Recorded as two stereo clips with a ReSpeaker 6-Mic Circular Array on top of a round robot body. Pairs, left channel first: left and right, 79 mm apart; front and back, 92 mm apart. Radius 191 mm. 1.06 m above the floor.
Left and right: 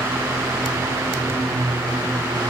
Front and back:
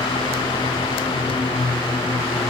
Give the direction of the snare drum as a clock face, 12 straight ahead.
I don't hear a snare drum.